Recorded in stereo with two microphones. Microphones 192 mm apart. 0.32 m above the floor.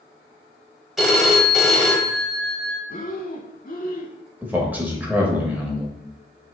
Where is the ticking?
No ticking in this recording.